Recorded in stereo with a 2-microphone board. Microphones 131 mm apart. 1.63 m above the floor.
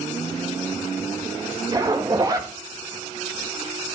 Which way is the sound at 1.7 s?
30° right (ahead or behind).